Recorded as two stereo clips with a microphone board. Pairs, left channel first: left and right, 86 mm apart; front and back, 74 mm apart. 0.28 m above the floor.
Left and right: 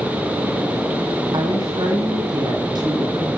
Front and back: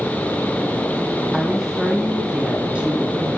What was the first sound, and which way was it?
A woman speaking, 95° right.